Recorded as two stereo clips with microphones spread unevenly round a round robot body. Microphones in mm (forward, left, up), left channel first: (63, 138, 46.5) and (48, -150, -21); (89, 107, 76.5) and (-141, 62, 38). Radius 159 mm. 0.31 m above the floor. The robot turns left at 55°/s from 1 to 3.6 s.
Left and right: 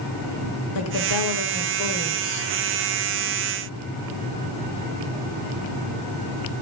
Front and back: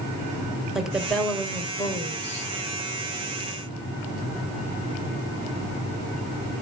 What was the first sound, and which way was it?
A woman speaking, 115° left.